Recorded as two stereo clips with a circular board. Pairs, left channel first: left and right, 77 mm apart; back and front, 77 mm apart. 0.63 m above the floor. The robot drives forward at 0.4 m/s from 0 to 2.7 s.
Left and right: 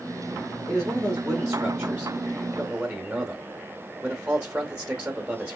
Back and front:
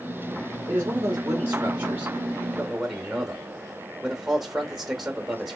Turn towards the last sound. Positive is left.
turn(degrees=-85)